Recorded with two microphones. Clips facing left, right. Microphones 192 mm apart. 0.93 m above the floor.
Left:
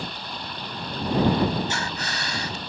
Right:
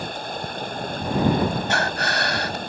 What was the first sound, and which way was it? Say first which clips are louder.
Running water: right 5 dB; 50° right (ahead or behind).